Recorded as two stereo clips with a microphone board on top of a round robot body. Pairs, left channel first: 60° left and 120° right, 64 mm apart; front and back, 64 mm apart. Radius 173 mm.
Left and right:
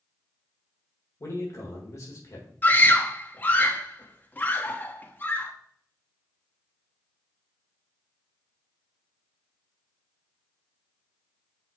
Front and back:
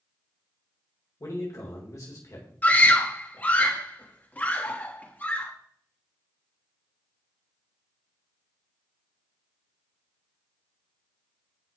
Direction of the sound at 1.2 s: 30° left.